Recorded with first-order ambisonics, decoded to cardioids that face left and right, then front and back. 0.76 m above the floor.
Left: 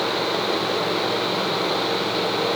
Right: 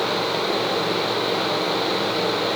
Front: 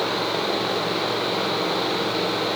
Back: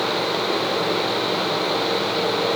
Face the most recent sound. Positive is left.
No sound to turn to.